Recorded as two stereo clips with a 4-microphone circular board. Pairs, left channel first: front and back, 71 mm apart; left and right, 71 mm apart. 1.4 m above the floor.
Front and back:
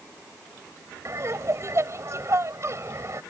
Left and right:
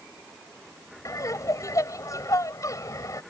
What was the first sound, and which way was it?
Laughter, 130° left.